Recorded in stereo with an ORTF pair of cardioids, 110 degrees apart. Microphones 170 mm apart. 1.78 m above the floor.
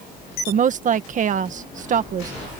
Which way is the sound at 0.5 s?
50° right.